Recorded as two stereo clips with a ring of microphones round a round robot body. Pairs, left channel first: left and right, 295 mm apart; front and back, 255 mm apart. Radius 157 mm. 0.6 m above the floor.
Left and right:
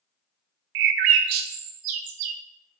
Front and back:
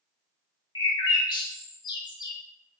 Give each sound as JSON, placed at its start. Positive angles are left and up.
{"t": 0.8, "sound": "a bird", "azimuth_deg": -75, "distance_m": 0.7}